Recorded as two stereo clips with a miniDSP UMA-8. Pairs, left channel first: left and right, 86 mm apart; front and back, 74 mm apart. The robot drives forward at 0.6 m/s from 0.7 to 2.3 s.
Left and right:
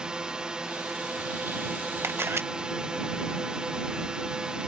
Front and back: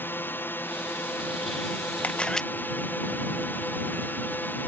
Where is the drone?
20° right.